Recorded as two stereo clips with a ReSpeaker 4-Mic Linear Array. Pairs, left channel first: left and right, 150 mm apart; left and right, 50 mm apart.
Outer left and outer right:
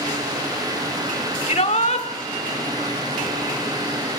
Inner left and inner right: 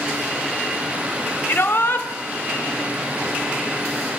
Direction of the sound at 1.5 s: 50° left (ahead or behind).